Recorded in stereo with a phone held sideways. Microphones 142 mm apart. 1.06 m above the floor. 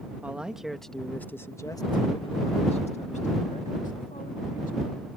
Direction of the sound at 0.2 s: 10° right (ahead or behind).